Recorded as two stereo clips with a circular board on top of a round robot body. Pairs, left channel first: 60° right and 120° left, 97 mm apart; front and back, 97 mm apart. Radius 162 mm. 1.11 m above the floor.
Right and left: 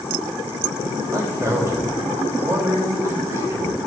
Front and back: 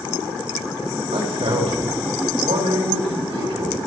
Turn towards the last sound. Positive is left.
turn(degrees=180)